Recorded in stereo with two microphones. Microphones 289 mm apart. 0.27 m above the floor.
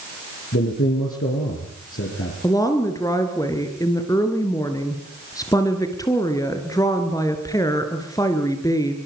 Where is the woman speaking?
10° left (ahead or behind), 4 m.